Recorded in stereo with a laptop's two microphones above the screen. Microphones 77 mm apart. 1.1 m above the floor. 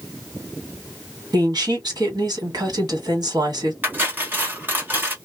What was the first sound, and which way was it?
A woman speaking, 50° right (ahead or behind).